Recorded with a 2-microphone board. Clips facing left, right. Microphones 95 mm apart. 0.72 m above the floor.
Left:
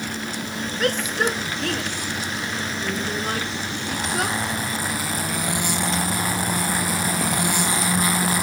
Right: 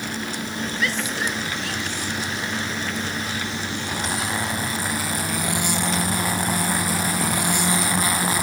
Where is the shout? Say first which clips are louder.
Left 5 dB; 50° left (ahead or behind); by 4.4 s 60° left (ahead or behind).